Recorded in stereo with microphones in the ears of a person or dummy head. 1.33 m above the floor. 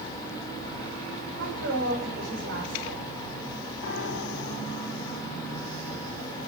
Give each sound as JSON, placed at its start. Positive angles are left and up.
{"t": 1.4, "sound": "a woman speaking", "side_deg": -70, "distance_m": 5.0}
{"t": 3.8, "sound": "a piano", "side_deg": 60, "distance_m": 3.0}